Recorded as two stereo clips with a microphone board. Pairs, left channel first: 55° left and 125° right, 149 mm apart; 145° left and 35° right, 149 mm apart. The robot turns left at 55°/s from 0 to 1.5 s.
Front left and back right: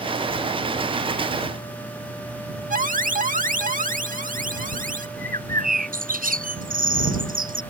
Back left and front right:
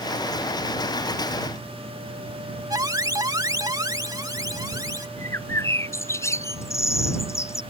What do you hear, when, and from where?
2.7 s an alarm: 100° right
5.2 s a bird: 145° right